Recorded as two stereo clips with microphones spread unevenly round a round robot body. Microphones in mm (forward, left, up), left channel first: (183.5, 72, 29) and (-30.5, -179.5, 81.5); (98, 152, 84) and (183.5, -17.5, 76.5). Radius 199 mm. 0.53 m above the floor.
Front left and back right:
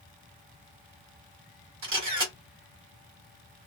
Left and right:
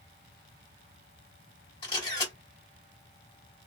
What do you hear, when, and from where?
1.8 s a camera shutter: straight behind, 1.4 m